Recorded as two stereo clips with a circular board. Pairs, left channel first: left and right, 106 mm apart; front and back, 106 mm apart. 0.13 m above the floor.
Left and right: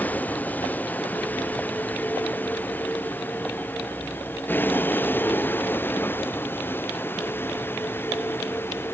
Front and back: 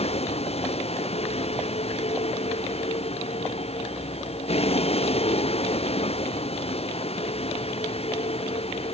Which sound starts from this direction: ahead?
A vehicle, at 0.0 s.